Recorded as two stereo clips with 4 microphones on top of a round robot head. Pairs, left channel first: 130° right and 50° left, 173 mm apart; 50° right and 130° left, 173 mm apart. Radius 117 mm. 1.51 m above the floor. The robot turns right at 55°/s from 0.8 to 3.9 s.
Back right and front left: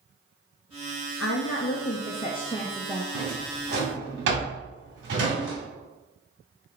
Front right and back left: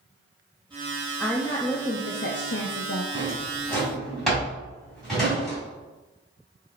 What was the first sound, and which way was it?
A woman speaking, 135° right.